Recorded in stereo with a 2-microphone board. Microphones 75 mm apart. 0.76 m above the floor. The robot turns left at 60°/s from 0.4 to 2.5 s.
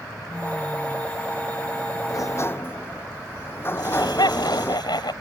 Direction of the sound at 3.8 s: 75° left (ahead or behind).